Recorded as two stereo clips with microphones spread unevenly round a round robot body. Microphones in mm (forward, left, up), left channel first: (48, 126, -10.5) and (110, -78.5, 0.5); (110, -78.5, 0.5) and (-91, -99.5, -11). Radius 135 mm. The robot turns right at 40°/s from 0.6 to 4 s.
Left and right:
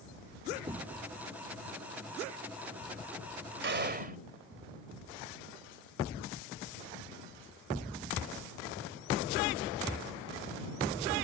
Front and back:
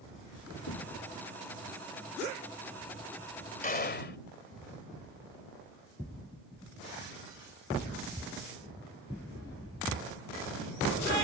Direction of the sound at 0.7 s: Straight ahead.